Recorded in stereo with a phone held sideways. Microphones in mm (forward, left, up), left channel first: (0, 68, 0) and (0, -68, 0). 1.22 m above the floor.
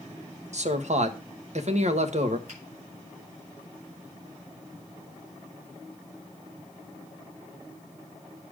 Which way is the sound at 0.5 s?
55° right (ahead or behind).